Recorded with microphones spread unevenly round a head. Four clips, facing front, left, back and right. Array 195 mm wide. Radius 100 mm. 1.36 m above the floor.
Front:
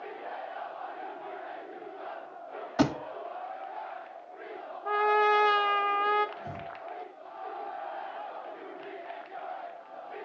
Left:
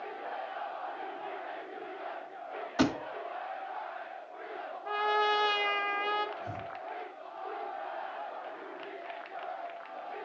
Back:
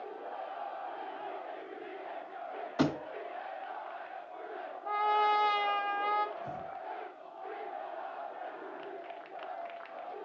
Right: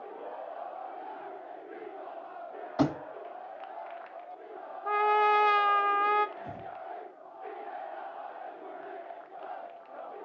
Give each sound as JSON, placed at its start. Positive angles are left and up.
{"t": 2.8, "sound": "a thud", "azimuth_deg": -10, "distance_m": 1.3}
{"t": 4.8, "sound": "a trumpet", "azimuth_deg": -45, "distance_m": 0.6}
{"t": 6.4, "sound": "breathing", "azimuth_deg": 0, "distance_m": 3.0}